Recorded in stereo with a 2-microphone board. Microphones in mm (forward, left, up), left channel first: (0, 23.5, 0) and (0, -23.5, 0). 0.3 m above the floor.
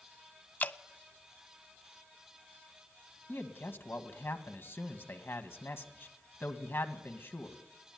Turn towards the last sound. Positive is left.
turn(degrees=60)  # may be behind; listen again after turning